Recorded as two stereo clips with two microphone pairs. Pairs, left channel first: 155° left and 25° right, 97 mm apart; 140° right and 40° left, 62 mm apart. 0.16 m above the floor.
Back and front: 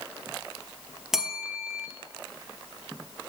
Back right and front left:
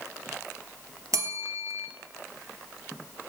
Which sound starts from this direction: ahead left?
A bell, at 1.1 s.